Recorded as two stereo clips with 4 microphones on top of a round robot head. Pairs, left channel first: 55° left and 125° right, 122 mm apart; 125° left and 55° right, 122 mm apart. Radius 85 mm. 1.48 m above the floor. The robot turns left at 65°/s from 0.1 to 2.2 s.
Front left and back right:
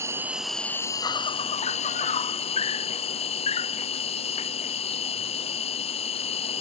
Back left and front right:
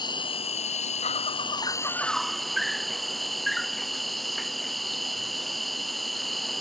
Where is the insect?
170° left; by 6.6 s 35° left.